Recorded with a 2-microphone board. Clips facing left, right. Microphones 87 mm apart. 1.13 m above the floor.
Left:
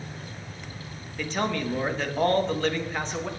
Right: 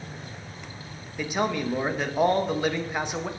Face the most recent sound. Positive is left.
turn(degrees=-10)  # may be behind; listen again after turning